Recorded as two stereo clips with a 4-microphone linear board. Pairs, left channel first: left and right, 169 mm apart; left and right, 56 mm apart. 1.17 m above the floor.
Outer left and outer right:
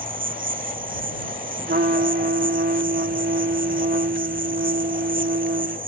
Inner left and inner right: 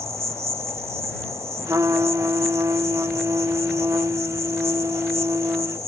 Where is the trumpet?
75° right (ahead or behind).